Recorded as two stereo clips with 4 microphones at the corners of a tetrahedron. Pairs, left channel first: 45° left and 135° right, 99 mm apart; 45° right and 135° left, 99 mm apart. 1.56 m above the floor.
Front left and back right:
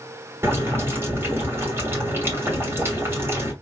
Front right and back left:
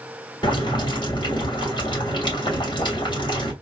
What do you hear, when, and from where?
0.4 s boiling: 75° right, 2.5 m